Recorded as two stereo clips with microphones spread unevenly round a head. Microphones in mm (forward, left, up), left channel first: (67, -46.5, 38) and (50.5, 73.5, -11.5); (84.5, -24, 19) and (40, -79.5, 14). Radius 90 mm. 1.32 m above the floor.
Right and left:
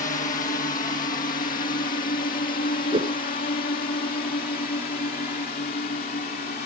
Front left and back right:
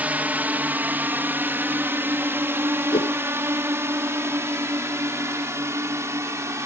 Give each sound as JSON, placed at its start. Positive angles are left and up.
{"t": 0.0, "sound": "a drone", "azimuth_deg": -65}
{"t": 2.9, "sound": "a whoosh", "azimuth_deg": 50}